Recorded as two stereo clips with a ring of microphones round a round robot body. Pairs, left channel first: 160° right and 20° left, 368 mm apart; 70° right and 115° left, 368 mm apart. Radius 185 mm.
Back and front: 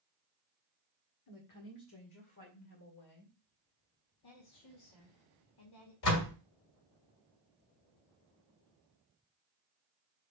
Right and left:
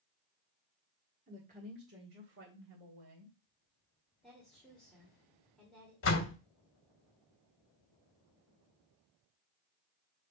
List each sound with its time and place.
1.3 s a woman speaking: straight behind, 1.7 m; by 3.4 s 160° left, 3 m
4.2 s a woman speaking: 155° right, 2 m
6.0 s a door slam: 120° right, 1.7 m